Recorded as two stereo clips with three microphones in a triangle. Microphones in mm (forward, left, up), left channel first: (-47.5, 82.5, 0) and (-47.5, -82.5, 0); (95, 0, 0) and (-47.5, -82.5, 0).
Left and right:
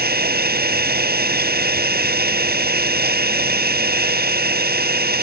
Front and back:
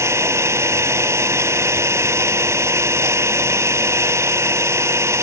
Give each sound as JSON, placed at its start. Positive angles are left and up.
{"t": 0.0, "sound": "an engine running", "azimuth_deg": -75}